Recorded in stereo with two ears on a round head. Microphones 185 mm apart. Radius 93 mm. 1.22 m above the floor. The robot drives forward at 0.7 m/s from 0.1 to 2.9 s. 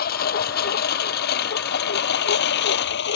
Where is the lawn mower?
45° left (ahead or behind); by 3.2 s 55° left (ahead or behind).